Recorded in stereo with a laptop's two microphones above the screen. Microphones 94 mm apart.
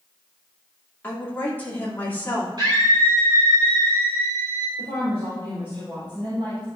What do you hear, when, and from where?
1.0 s a woman speaking: 20° left (ahead or behind), 2.5 m
2.6 s a scream: 50° right (ahead or behind), 3.5 m
4.8 s a woman speaking: 80° right, 4 m